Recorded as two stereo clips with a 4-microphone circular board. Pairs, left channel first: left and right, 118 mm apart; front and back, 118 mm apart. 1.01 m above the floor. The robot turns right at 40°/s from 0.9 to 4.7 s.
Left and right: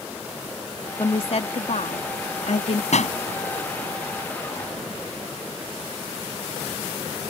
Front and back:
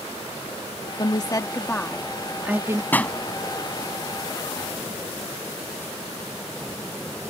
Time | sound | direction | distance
1.0 | a woman speaking | 45° left | ?
2.9 | a pop | 75° left | ?